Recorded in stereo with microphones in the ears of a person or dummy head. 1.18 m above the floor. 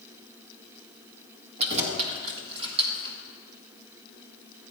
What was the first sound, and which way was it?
Keys jangling, 35° right (ahead or behind).